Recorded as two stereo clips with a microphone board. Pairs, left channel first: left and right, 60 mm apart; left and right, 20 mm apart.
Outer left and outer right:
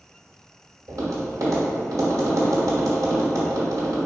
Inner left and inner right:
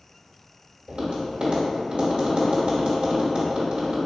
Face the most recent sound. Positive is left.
turn(degrees=-70)  # may be behind; listen again after turning